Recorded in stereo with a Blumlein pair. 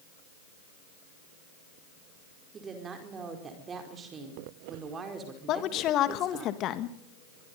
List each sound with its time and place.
2.5 s a woman speaking: 20° right, 4.5 m
5.5 s a woman speaking: 35° left, 1.8 m